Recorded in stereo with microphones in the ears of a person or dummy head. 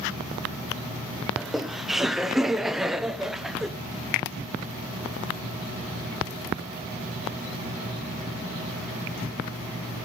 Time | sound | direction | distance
1.4 | laughter | centre (ahead or behind) | 0.6 m